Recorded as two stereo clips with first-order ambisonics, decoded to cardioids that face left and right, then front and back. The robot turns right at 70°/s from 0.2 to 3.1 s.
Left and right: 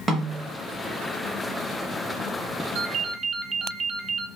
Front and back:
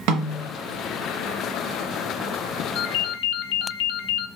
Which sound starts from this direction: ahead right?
A ringtone, at 2.8 s.